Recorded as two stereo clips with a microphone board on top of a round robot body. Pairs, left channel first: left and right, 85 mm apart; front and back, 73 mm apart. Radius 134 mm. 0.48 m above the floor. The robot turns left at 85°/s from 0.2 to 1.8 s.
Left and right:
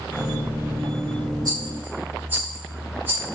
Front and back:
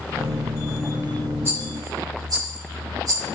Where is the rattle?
125° right, 2.0 m; by 3.3 s 155° right, 2.0 m.